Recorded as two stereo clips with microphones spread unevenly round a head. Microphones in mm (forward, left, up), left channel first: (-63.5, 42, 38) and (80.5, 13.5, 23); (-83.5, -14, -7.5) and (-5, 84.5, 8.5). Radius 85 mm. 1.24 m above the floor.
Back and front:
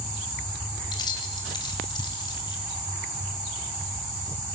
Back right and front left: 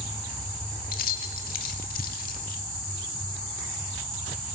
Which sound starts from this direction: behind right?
Keys jangling, at 0.9 s.